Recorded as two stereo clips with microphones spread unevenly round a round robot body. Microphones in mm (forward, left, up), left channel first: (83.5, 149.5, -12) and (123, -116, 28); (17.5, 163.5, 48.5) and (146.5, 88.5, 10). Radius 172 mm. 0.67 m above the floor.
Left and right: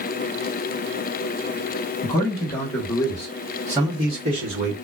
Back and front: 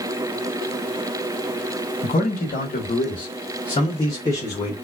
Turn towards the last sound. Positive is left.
turn(degrees=-115)